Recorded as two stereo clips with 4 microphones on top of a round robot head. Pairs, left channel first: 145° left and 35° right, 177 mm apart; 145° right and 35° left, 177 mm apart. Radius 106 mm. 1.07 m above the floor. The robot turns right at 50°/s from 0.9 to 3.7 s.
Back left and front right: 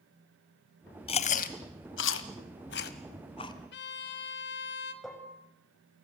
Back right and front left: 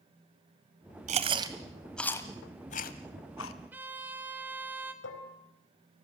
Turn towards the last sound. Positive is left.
turn(degrees=-130)